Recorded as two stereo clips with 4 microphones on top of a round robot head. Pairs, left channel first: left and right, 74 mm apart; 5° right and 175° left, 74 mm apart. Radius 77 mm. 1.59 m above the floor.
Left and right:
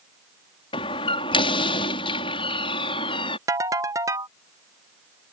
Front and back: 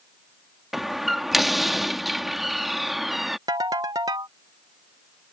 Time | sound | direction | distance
0.7 | a door slam | 85° left | ?
3.5 | a ringtone | 130° right | ?